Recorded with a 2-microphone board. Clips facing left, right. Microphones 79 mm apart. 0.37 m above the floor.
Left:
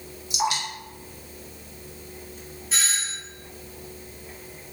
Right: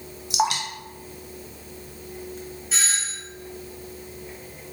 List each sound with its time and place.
0.3 s dripping: 75° right (ahead or behind), 0.7 m
2.7 s a doorbell: centre (ahead or behind), 1.4 m